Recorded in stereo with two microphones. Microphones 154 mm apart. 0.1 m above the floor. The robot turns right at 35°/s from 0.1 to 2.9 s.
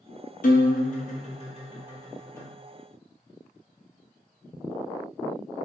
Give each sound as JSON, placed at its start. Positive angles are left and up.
{"t": 0.4, "sound": "a guitar", "azimuth_deg": 95, "distance_m": 0.9}